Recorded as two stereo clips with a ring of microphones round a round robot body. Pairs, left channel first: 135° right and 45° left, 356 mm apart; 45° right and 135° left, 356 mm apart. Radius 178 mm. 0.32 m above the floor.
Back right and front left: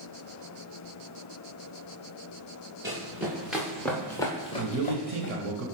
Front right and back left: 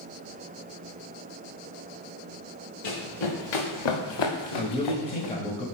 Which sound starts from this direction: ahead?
A man speaking, at 4.6 s.